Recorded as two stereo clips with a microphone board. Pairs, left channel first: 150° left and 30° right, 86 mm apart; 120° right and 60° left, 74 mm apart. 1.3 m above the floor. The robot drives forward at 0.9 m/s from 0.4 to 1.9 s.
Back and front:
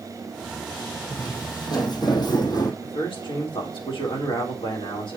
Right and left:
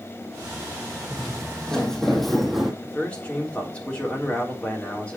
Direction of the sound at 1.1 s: 160° left.